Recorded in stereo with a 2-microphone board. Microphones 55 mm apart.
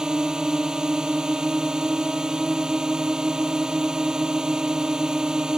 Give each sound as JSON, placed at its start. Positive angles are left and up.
{"t": 0.0, "sound": "a drone", "side_deg": -10}